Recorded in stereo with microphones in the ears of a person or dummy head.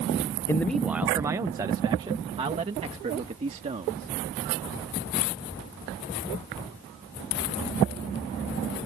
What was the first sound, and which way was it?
A man speaking, 10° left (ahead or behind).